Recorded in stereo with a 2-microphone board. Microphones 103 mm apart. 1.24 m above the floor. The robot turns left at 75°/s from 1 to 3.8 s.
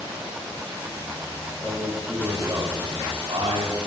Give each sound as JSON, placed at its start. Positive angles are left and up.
{"t": 1.6, "sound": "a man speaking", "azimuth_deg": 45, "distance_m": 7.0}